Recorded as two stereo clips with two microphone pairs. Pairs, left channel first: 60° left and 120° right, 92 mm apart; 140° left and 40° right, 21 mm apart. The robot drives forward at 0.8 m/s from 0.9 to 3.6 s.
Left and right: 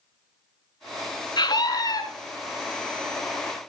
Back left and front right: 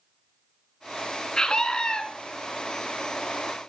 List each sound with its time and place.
1.4 s a scream: 90° left, 2.5 m; by 2.0 s 105° left, 2.5 m